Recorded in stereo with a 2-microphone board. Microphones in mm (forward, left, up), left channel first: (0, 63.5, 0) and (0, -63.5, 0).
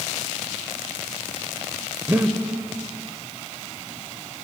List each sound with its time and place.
2.1 s breathing: 15° right (ahead or behind), 0.6 m